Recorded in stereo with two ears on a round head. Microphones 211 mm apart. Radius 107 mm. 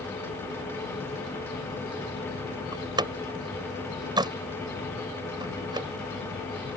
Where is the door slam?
20° right (ahead or behind).